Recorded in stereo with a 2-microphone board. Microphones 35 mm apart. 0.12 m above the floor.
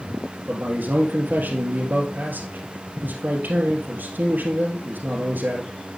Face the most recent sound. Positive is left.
turn(degrees=-60)  # may be behind; listen again after turning